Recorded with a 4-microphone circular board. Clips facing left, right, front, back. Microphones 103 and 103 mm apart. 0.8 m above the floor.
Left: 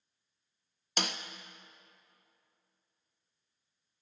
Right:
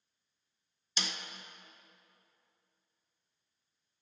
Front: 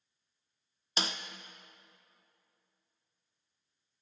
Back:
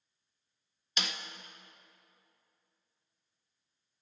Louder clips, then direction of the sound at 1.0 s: Left 5 dB, front 3 dB; 55° left.